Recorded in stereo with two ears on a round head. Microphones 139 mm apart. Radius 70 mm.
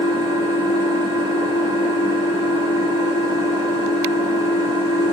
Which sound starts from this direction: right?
An engine running, at 0.0 s.